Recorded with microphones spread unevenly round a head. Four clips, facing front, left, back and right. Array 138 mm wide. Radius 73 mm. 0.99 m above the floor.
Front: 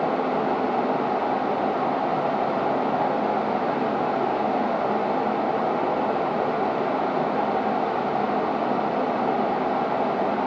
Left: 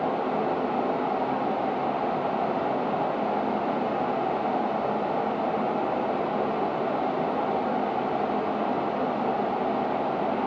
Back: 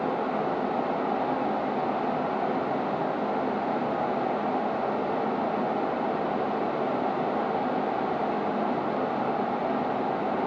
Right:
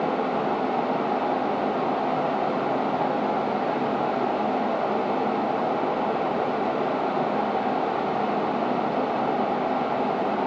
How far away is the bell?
No bell in this recording.